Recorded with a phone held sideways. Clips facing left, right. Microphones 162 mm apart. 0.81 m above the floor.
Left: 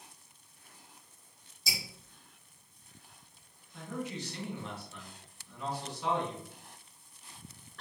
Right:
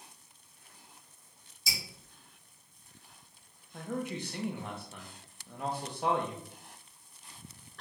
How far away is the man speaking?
About 0.7 m.